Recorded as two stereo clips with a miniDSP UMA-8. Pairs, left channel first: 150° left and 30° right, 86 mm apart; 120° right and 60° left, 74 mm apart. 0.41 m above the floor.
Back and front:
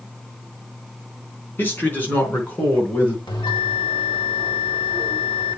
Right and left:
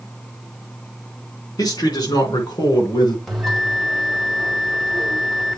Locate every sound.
1.6 s a man speaking: 145° right, 3.5 m; by 3.2 s 135° right, 4.5 m
3.3 s a bell: 155° left, 2.0 m